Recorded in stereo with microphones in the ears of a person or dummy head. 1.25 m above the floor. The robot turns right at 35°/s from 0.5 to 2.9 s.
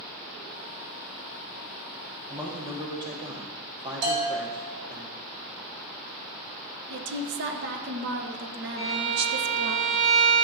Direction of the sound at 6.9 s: 60° right (ahead or behind).